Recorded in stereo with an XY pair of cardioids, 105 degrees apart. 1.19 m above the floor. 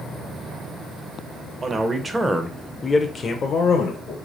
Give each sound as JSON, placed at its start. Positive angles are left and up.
{"t": 1.6, "sound": "a man speaking", "azimuth_deg": -35, "distance_m": 1.0}